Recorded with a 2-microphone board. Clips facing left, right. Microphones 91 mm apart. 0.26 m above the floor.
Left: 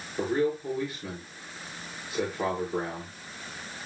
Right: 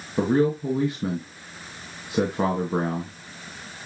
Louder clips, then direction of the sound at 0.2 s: Right 6 dB; 65° right (ahead or behind).